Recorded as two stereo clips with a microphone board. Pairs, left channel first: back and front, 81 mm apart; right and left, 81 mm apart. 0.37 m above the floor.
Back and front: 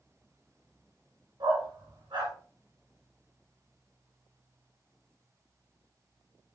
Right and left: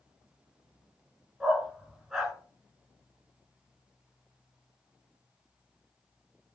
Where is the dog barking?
Straight ahead, 2.0 m.